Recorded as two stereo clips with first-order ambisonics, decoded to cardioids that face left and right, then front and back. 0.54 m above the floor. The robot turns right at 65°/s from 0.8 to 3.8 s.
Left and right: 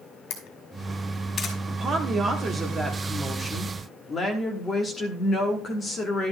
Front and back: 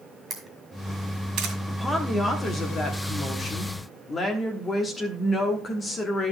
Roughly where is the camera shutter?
Behind left.